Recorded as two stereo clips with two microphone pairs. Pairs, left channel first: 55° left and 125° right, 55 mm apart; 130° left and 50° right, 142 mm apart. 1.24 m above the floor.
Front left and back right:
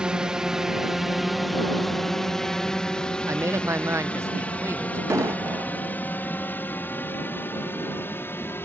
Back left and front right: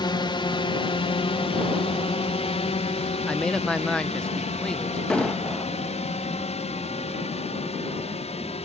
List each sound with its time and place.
0.0 s a drone: 165° left; by 8.7 s 95° left
3.3 s a man speaking: 145° right
5.1 s an explosion: 150° right